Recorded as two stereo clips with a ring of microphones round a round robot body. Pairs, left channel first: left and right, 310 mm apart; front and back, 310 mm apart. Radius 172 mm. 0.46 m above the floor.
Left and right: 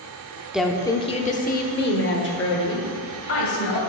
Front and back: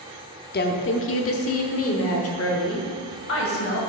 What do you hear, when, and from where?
0.5 s a woman speaking: 5° right, 0.7 m; by 3.8 s 45° left, 2.5 m